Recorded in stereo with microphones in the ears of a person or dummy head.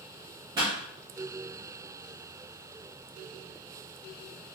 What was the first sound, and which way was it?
A pop, 20° right (ahead or behind).